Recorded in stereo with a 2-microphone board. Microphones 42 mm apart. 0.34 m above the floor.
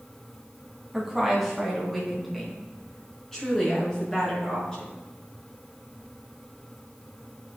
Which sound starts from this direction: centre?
A woman speaking, at 0.9 s.